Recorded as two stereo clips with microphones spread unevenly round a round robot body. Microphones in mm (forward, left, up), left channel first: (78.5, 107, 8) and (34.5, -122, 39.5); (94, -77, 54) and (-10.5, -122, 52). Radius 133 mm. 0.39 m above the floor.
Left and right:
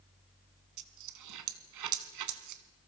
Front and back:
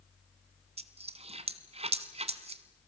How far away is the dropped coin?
About 1.5 m.